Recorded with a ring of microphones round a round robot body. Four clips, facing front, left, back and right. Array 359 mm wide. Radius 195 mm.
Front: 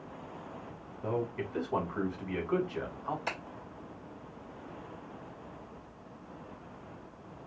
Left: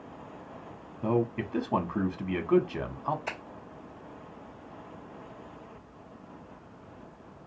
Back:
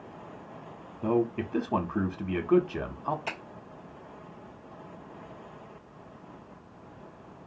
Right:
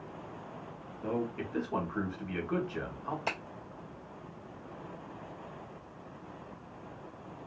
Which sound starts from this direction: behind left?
A man speaking, at 1.0 s.